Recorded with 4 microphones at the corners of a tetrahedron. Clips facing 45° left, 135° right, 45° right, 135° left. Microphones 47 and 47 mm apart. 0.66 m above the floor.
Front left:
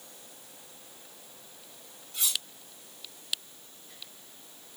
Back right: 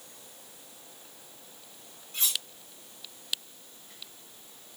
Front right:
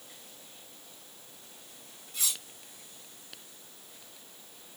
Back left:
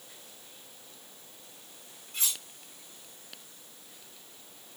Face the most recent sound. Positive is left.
turn(degrees=175)